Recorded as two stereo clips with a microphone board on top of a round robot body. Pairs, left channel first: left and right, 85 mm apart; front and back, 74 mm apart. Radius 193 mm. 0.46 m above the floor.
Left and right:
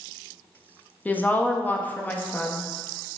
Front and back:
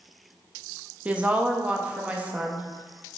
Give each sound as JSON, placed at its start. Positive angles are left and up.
{"t": 1.1, "sound": "a woman speaking", "azimuth_deg": 135, "distance_m": 0.7}